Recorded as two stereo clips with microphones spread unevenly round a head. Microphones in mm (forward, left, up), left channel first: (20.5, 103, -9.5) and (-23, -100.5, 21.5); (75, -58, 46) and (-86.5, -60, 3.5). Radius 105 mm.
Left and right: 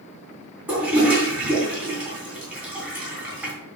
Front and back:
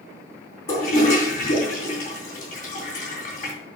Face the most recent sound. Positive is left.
turn(degrees=-25)